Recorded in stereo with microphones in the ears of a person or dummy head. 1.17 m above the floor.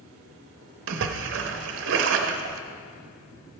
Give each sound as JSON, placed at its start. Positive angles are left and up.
{"t": 0.9, "sound": "a splash", "side_deg": -60, "distance_m": 0.7}